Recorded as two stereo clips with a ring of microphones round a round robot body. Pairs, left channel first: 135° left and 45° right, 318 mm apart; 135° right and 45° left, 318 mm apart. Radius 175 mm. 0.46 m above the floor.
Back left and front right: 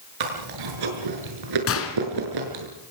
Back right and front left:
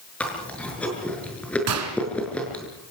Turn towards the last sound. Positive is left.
turn(degrees=85)